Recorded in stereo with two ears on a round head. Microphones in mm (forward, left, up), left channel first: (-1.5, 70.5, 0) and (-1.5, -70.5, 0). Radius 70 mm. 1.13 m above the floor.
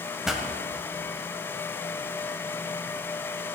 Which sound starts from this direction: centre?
A pop, at 0.2 s.